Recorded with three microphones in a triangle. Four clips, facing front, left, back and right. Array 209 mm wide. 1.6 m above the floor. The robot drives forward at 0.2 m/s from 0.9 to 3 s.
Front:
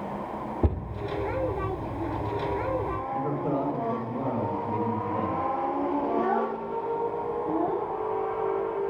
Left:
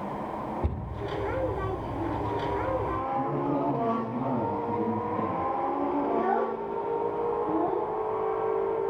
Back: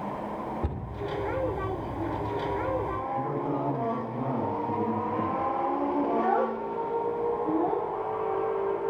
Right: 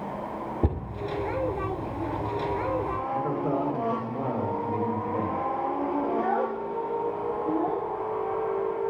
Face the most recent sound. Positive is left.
turn(degrees=-150)